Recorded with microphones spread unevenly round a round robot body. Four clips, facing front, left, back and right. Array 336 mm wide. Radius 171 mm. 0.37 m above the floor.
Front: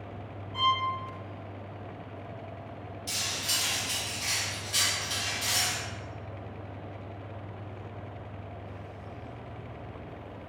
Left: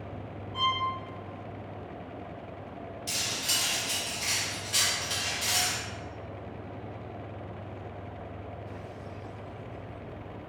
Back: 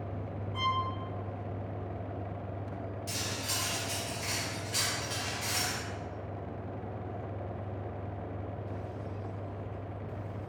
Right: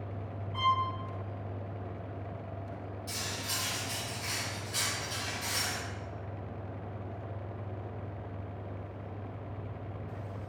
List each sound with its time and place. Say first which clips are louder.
0.5 s a violin: right 1 dB, front 4 dB; 115° right, 0.7 m
3.1 s cutlery clinking: left 2 dB, even; 115° left, 0.8 m